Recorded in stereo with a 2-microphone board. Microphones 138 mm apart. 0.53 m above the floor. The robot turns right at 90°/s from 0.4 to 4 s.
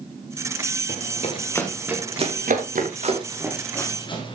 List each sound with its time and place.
0.9 s running footsteps: 80° left, 4 m; by 4.3 s 40° left (ahead or behind), 5.5 m